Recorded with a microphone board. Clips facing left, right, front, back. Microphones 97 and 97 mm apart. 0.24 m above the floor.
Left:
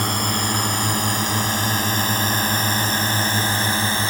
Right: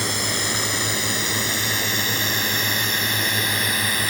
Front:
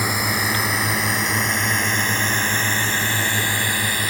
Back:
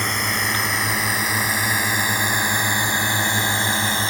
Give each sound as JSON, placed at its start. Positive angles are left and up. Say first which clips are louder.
{"t": 0.0, "sound": "a drone", "louder": "left 4 dB, front 1 dB", "azimuth_deg": 80}